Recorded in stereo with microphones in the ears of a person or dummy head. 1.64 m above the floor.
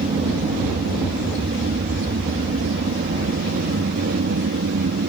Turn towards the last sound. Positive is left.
turn(degrees=-55)  # may be behind; listen again after turning